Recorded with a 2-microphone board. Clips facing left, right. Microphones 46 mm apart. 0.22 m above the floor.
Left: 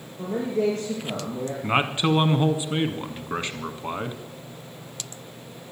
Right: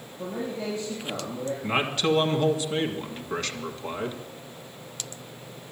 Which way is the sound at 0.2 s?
70° left (ahead or behind).